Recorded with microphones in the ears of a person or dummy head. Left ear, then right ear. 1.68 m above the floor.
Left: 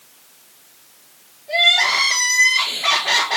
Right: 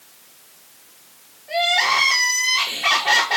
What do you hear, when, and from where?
1.5 s crying: 5° right (ahead or behind), 3.5 m